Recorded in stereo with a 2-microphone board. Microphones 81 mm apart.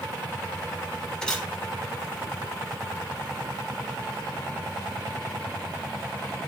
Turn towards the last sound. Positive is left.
turn(degrees=10)  # may be behind; listen again after turning